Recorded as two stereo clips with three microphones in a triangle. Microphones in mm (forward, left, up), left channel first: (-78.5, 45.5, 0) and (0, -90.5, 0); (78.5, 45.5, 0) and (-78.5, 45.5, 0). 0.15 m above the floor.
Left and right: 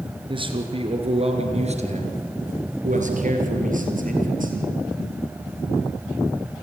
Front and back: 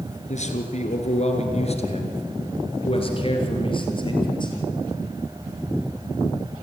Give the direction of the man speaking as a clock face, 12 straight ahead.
12 o'clock.